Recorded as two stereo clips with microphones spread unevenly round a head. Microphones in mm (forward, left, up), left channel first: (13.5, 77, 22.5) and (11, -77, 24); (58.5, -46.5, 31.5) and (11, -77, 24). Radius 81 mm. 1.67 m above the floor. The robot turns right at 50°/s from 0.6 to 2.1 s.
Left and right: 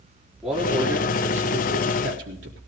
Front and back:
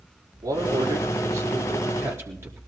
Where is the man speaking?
Straight behind, 4 m; by 2.6 s 105° right, 4 m.